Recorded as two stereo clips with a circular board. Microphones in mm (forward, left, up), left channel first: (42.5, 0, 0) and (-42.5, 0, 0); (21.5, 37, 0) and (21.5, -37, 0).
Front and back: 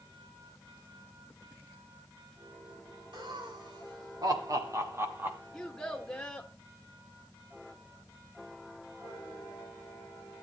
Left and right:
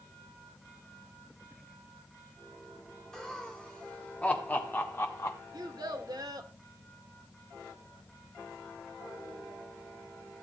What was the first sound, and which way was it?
Laughter, 170° left.